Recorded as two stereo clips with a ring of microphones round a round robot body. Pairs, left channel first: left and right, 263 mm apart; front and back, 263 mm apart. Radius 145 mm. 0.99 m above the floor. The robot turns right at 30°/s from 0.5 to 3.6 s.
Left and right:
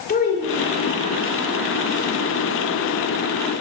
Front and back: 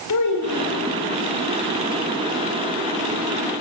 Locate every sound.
0.1 s a child speaking: 35° left, 2.5 m; by 0.9 s 50° left, 2.5 m